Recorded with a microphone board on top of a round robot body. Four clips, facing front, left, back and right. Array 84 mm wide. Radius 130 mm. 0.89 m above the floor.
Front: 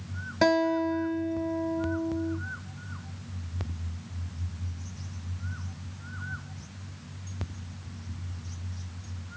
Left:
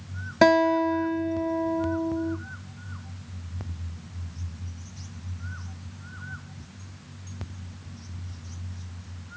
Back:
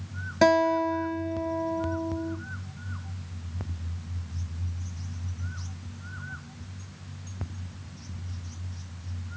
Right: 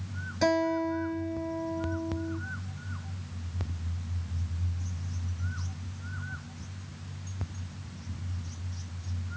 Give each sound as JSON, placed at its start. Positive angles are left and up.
{"t": 0.4, "sound": "a guitar", "azimuth_deg": 95, "distance_m": 0.6}